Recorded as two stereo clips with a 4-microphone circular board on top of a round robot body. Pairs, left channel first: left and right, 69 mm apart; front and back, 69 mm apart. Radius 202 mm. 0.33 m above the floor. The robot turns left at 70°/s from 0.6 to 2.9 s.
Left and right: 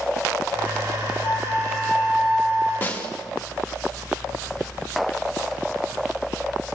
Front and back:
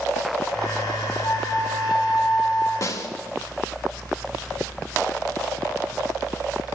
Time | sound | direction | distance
1.2 | a flute | 60° left | 3 m
2.8 | a snare drum | 30° left | 2 m